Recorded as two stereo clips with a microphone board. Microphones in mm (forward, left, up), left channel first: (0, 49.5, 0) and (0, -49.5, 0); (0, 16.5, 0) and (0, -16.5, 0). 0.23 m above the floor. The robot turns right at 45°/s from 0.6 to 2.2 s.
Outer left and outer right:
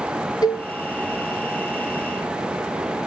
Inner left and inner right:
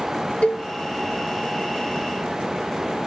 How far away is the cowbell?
About 0.8 m.